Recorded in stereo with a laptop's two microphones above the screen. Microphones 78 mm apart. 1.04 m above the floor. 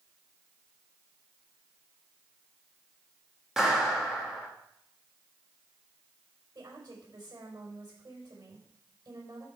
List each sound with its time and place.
3.6 s a clap: 5° right (ahead or behind), 1.4 m
6.5 s a woman speaking: 60° right (ahead or behind), 5 m